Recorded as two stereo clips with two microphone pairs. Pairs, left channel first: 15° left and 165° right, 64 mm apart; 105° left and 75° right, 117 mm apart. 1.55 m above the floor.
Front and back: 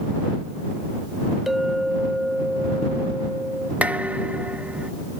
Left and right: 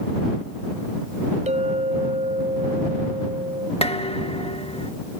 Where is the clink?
80° right.